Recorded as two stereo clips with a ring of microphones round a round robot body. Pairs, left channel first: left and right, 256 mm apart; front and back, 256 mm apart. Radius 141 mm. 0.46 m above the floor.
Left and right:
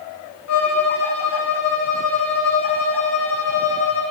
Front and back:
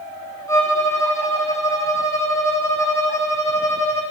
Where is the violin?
75° left, 3 m.